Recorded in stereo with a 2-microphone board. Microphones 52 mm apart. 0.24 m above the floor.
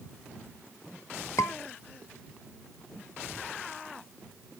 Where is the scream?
75° left (ahead or behind).